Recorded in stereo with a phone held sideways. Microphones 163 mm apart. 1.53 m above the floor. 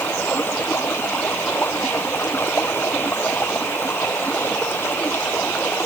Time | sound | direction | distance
0.0 | running water | 15° left (ahead or behind) | ?